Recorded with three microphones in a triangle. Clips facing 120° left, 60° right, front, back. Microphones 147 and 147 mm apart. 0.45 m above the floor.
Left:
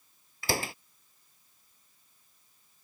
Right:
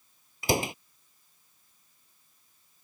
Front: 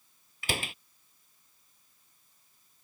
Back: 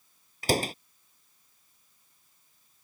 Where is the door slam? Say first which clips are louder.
Right 5 dB, back 9 dB; 130° right.